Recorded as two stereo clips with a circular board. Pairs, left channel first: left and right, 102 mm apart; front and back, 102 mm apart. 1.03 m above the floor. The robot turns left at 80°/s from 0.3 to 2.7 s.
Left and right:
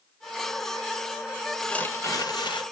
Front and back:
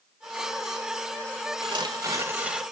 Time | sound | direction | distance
1.6 | tearing paper | 175° left | 1.1 m